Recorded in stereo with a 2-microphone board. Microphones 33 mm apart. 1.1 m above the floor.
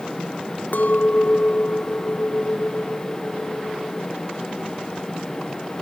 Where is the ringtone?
No ringtone in this recording.